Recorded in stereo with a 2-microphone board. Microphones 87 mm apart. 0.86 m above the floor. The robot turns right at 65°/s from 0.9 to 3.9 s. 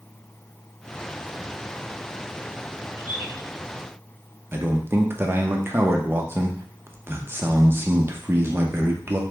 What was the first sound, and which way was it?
A bird, 70° left (ahead or behind).